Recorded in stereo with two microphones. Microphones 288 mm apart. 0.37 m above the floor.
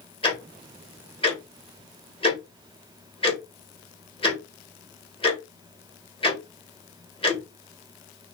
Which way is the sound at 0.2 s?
20° left (ahead or behind).